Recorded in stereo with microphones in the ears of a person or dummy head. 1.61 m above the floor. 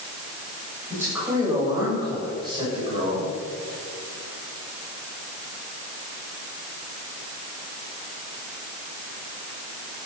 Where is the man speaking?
20° right (ahead or behind), 8 m; by 3.3 s 40° right (ahead or behind), 7.5 m.